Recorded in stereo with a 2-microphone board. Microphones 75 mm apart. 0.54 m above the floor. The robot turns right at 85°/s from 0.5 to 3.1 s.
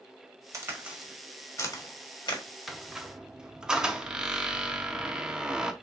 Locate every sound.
0.5 s a crack: 45° right (ahead or behind), 1.3 m; by 2.4 s 65° left (ahead or behind), 1.3 m
2.7 s a squeak: centre (ahead or behind), 0.6 m; by 5.7 s 10° right (ahead or behind), 0.6 m